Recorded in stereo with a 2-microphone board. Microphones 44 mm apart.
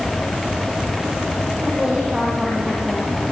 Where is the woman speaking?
20° right (ahead or behind), 8.5 m.